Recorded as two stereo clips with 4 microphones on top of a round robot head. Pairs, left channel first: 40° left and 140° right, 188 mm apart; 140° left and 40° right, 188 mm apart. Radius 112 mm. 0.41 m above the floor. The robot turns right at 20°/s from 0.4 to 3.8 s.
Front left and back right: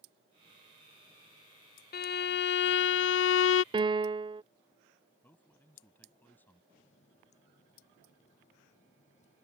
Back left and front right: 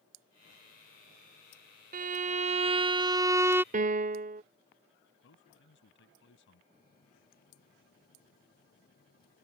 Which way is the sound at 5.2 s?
120° left.